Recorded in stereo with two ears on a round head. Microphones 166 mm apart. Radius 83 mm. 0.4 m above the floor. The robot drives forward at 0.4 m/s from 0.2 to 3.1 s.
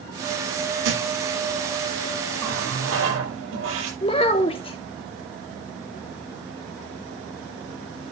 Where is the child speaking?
30° left (ahead or behind), 0.7 m.